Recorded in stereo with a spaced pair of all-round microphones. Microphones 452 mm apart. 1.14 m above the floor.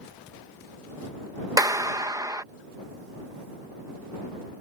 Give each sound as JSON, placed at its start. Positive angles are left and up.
{"t": 1.6, "sound": "a clap", "side_deg": -10}